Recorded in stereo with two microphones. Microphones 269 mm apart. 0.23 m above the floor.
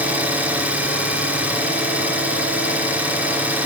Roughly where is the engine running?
Centre.